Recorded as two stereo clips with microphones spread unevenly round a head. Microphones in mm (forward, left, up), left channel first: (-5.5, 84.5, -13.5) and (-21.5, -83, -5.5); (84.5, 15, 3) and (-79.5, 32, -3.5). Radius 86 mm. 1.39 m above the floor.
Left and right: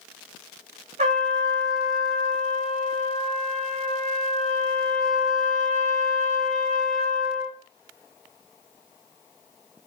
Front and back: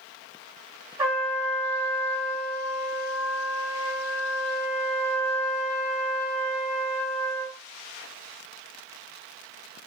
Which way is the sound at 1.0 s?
115° right.